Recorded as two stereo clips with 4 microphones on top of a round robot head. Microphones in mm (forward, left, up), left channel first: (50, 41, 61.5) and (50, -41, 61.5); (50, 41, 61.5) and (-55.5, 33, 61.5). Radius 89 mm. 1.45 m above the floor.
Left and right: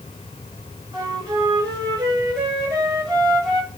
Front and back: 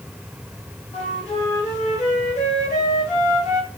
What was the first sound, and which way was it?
A flute, 40° right.